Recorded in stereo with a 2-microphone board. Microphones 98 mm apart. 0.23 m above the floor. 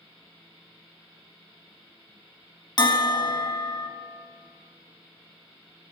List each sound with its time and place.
2.8 s a bell: 45° left (ahead or behind), 0.7 m